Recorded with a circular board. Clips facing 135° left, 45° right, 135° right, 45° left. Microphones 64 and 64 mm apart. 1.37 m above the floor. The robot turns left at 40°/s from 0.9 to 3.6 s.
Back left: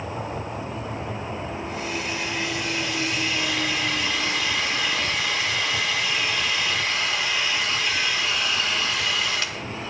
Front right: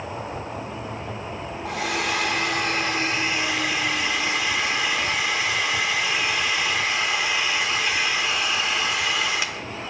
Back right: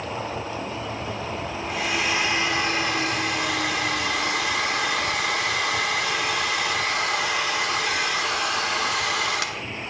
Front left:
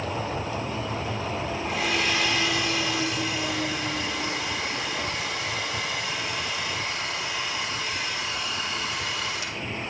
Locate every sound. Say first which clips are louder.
1.6 s a hair dryer: front right 7 dB, back right 1 dB; 45° right, 1.4 m; by 9.6 s 125° right, 1.4 m